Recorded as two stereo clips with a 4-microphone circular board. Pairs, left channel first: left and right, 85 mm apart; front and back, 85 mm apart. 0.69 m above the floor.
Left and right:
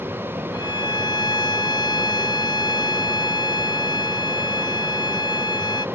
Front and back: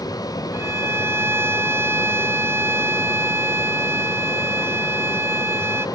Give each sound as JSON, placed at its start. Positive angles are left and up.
{"t": 0.5, "sound": "a violin", "azimuth_deg": 120}